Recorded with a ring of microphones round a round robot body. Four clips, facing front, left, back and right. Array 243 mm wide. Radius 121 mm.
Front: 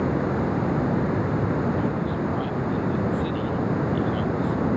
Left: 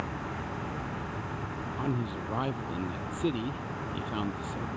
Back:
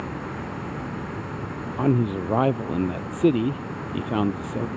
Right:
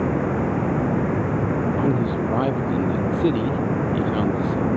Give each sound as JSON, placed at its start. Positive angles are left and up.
{"t": 0.0, "sound": "running water", "azimuth_deg": -60}
{"t": 1.8, "sound": "a man speaking", "azimuth_deg": -150}